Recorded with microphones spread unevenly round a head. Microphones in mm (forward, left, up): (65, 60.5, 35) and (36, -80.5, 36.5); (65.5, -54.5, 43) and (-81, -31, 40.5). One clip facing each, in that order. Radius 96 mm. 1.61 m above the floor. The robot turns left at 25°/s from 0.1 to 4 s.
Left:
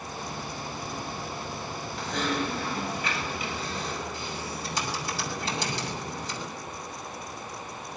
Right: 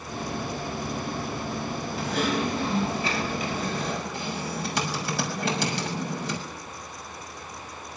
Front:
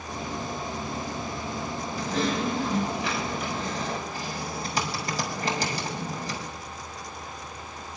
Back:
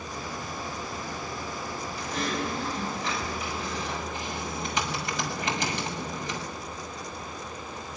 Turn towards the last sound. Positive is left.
turn(degrees=-65)